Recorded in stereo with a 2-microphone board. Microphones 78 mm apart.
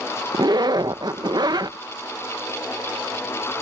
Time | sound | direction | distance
0.3 | a zipper | 60° right (ahead or behind) | ?